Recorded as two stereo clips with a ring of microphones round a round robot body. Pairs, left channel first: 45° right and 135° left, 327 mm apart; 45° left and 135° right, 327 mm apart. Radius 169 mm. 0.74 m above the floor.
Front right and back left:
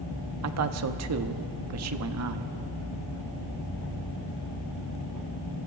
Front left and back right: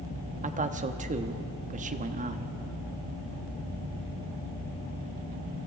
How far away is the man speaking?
About 1.1 m.